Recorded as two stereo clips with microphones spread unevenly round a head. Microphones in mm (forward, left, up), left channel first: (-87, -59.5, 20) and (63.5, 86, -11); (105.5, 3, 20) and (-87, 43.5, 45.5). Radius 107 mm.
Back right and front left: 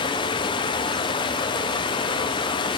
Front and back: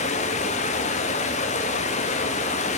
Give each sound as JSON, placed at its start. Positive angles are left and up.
{"t": 0.0, "sound": "running water", "azimuth_deg": -75, "distance_m": 0.9}